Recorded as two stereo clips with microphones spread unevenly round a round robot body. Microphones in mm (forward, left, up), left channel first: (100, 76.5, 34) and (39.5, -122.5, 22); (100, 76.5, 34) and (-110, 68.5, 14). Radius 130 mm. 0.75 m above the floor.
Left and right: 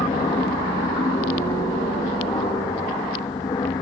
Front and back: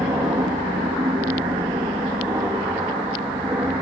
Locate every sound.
0.0 s an aircraft: 120° left